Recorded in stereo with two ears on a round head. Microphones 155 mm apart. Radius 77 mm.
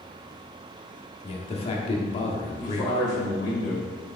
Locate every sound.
1.2 s a man speaking: 35° left (ahead or behind), 0.7 m
2.6 s a man speaking: 20° left (ahead or behind), 1.4 m